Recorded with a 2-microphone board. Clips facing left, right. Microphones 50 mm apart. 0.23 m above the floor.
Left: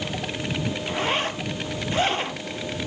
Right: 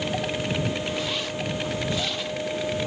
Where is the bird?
I don't hear a bird.